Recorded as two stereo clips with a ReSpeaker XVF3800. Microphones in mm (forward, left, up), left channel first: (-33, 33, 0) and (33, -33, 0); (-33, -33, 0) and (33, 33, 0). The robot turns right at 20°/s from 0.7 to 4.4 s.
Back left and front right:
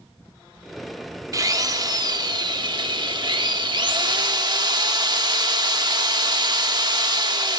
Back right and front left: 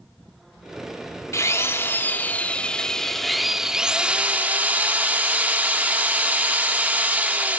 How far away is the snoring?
No snoring in this recording.